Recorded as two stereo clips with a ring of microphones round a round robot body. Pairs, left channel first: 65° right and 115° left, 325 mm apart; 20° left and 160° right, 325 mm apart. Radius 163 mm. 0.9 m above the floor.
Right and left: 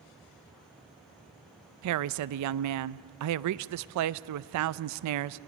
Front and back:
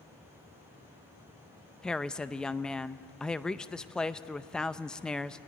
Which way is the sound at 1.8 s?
110° left.